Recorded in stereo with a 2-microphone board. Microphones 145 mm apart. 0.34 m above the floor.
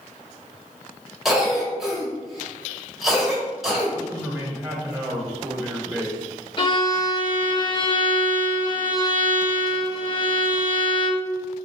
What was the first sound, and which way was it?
A cough, centre (ahead or behind).